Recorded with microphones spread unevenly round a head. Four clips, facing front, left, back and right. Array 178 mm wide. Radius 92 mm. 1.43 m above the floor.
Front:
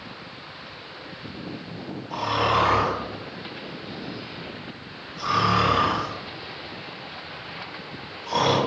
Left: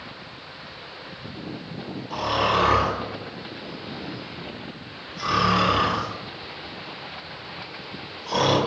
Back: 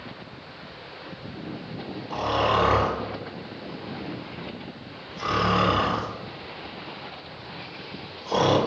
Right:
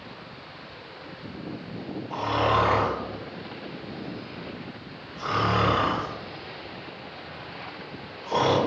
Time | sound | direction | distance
2.1 | snoring | 170° right | 1.8 m